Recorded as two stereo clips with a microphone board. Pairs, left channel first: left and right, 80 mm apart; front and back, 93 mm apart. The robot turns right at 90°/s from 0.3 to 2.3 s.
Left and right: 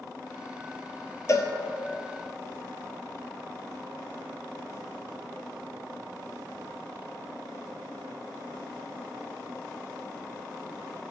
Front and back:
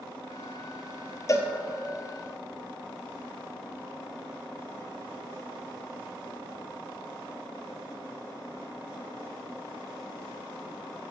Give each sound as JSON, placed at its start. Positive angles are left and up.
{"t": 1.3, "sound": "a cowbell", "azimuth_deg": 45, "distance_m": 0.6}